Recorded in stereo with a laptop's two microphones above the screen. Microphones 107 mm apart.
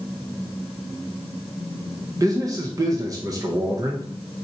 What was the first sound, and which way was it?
A man speaking, 35° right (ahead or behind).